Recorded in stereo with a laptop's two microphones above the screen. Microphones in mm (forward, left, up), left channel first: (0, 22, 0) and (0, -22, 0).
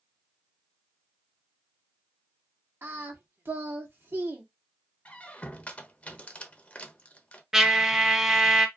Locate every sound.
2.8 s singing: 60° right (ahead or behind), 0.9 m
5.0 s a squeak: 30° left (ahead or behind), 0.6 m
7.5 s a trumpet: 10° right (ahead or behind), 0.5 m